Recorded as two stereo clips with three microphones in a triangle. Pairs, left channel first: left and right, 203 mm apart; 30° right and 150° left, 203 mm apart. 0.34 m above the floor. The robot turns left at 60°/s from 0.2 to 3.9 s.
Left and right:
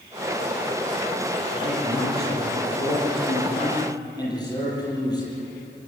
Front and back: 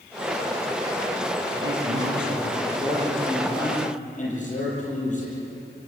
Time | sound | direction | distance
1.6 | a man speaking | 160° left | 9 m